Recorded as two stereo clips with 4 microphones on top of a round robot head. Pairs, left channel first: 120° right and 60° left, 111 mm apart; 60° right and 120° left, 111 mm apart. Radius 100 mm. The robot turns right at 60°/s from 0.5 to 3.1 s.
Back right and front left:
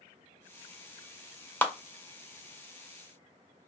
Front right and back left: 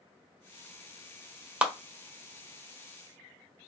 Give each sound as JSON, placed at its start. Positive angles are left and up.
{"t": 1.6, "sound": "a clap", "azimuth_deg": -170, "distance_m": 1.0}